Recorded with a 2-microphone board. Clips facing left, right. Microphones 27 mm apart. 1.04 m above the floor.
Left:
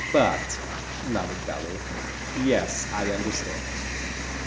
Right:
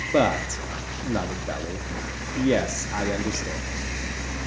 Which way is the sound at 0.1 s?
Centre (ahead or behind).